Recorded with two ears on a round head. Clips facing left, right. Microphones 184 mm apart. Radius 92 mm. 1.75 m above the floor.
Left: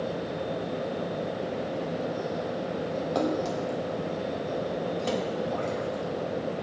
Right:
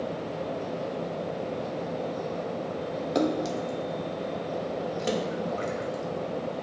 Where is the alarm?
No alarm in this recording.